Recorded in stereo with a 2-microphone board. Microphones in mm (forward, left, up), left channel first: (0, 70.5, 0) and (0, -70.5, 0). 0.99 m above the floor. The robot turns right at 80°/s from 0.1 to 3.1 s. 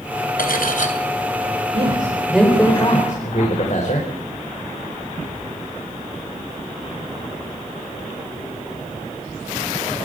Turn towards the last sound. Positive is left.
turn(degrees=55)